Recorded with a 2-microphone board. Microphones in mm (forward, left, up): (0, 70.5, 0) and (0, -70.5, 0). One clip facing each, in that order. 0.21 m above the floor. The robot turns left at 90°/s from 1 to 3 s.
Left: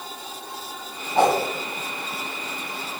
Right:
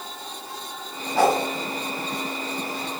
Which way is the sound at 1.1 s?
20° left (ahead or behind).